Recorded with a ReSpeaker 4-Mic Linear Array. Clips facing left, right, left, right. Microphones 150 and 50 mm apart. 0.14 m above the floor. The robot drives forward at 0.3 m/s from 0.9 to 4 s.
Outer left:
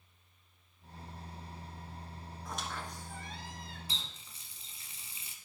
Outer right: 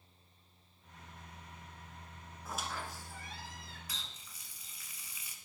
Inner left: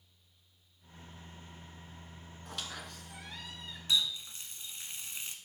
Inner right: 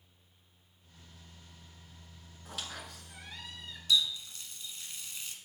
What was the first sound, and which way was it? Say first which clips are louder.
A squeak: even, even; 5° right (ahead or behind).